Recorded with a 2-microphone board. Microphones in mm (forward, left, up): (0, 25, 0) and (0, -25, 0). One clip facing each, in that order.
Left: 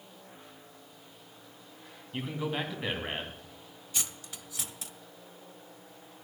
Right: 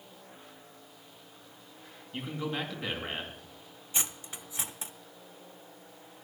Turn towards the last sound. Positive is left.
turn(degrees=-30)  # may be behind; listen again after turning